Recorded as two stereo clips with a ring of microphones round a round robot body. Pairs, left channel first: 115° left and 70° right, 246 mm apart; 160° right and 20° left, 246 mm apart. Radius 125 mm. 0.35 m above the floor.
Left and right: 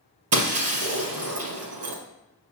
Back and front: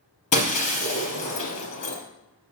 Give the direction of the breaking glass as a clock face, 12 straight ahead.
3 o'clock.